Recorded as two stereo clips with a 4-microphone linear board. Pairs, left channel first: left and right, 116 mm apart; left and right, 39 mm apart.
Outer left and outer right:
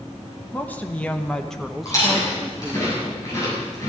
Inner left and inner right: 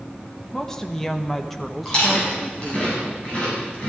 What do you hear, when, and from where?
0.5 s a woman speaking: 15° left (ahead or behind), 1.2 m; by 2.9 s 10° right (ahead or behind), 1.6 m
1.9 s chewing: 30° left (ahead or behind), 7.5 m